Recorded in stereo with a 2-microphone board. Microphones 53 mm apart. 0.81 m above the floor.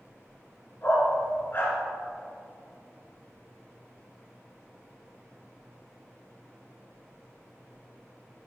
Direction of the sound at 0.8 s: 45° left (ahead or behind).